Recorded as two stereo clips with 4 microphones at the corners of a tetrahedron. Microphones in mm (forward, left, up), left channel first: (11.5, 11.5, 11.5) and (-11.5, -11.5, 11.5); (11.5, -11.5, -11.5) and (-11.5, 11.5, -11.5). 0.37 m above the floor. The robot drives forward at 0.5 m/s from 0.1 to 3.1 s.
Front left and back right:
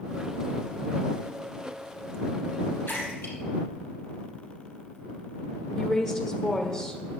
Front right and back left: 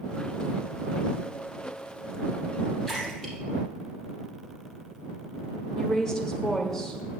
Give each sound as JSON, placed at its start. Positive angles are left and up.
{"t": 2.9, "sound": "a splash", "azimuth_deg": 35, "distance_m": 4.5}
{"t": 5.8, "sound": "a woman speaking", "azimuth_deg": -5, "distance_m": 1.2}